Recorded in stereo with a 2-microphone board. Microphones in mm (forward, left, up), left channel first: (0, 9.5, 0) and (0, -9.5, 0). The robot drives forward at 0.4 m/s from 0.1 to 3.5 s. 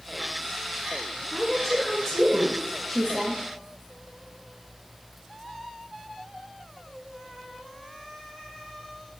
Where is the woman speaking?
10° left (ahead or behind), 1.2 m; by 3.4 s 5° left (ahead or behind), 1.8 m.